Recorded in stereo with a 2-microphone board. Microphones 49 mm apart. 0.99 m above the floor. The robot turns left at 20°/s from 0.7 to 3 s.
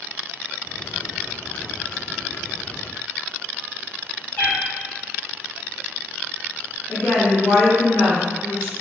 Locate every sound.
4.4 s a cat meowing: 35° left (ahead or behind), 1.5 m
6.9 s a woman speaking: 70° left (ahead or behind), 1.9 m